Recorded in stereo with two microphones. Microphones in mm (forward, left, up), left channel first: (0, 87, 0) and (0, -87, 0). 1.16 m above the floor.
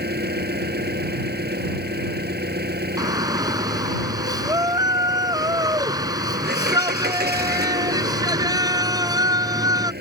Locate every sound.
0.0 s an engine running: 70° right (ahead or behind)
3.0 s a shout: 20° right (ahead or behind)